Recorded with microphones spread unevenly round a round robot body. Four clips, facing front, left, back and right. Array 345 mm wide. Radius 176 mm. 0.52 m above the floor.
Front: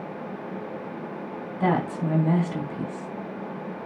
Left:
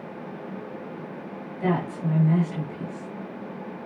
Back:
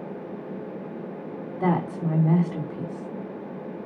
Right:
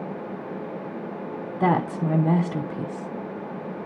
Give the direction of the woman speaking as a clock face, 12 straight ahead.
3 o'clock.